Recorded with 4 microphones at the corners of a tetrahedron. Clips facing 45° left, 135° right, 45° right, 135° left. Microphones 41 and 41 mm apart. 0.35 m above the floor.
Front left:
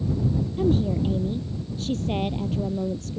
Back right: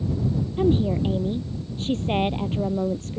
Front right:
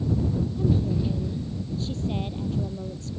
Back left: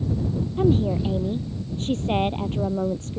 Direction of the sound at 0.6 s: 165° left.